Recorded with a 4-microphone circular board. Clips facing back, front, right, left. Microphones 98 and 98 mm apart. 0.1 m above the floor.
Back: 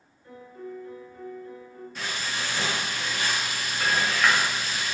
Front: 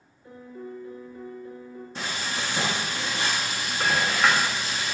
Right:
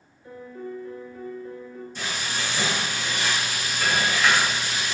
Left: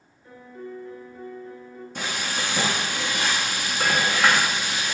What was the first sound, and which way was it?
A piano, 30° right.